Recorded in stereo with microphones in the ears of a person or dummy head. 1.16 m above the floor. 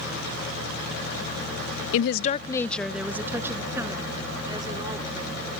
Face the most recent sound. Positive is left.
turn(degrees=-25)  # may be behind; listen again after turning